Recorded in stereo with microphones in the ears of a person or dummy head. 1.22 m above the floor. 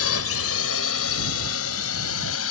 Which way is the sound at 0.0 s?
75° left (ahead or behind).